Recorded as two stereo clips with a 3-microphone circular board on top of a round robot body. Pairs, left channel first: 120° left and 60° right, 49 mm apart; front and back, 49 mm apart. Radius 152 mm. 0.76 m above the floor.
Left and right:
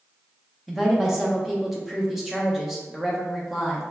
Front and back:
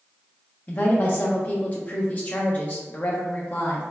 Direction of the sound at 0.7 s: 20° left.